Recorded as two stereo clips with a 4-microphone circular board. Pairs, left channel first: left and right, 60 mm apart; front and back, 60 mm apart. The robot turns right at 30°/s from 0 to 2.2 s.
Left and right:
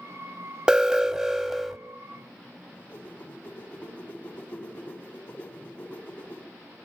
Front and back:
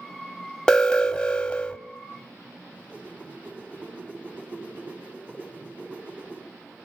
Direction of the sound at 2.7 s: 135° left.